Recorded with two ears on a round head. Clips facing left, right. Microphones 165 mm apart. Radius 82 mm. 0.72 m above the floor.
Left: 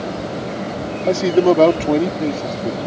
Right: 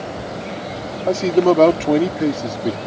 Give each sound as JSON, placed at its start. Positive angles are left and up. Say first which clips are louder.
{"t": 1.1, "sound": "a man speaking", "louder": "left 1 dB", "side_deg": 15}